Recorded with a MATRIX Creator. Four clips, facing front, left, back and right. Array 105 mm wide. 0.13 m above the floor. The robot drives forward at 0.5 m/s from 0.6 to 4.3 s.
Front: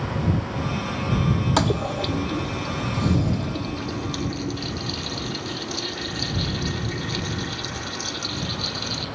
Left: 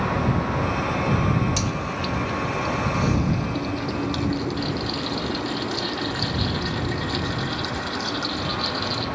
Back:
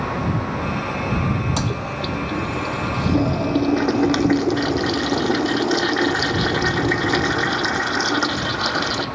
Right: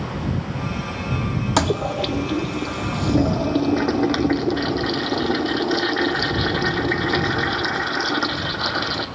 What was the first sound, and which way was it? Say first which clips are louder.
A toilet flushing: right 7 dB, front 2 dB; 65° right.